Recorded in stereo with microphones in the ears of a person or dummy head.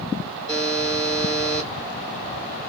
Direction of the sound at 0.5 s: 5° left (ahead or behind).